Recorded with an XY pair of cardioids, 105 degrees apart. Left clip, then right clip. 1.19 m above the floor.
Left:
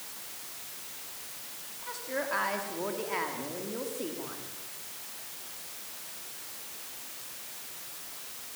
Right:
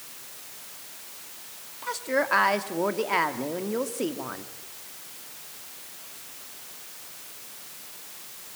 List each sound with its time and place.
1.8 s a woman speaking: 60° right, 2 m